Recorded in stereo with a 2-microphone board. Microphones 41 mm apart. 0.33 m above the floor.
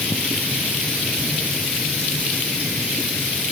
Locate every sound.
Only background noise.